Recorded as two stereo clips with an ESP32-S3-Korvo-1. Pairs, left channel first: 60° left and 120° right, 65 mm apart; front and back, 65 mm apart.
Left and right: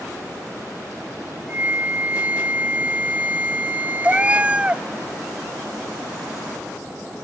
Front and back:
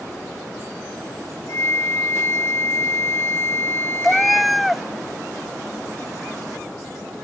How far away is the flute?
About 0.6 m.